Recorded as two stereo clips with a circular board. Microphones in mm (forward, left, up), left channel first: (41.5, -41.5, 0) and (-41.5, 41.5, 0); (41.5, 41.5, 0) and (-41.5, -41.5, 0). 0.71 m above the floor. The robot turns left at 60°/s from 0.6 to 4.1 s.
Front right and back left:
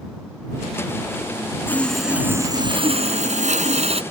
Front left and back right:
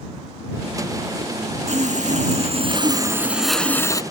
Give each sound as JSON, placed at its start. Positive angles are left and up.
{"t": 1.7, "sound": "sawing", "azimuth_deg": -115}